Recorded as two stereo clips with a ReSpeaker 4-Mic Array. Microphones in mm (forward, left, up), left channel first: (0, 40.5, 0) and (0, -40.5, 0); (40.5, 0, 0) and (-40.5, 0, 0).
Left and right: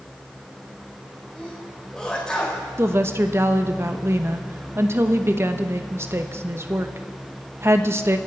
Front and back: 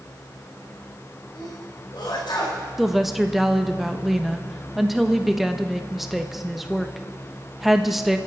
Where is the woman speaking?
95° right, 1.0 m.